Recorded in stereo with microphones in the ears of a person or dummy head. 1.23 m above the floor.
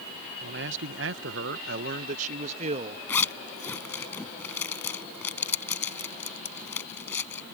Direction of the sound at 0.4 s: 50° right (ahead or behind).